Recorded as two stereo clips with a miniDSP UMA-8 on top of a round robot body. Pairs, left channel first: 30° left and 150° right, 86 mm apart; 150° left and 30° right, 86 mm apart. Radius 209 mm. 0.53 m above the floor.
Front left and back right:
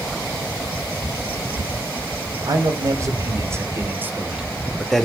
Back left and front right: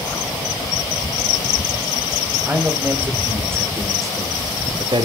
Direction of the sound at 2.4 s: 105° right.